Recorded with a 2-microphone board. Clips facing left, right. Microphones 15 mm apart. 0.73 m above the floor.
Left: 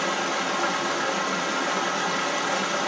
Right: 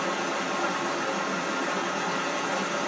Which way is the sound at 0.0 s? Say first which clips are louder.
Left 3 dB; 75° left (ahead or behind).